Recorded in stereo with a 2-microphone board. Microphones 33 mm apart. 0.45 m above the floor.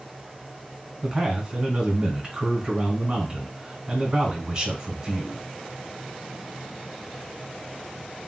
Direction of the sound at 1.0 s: 15° right (ahead or behind).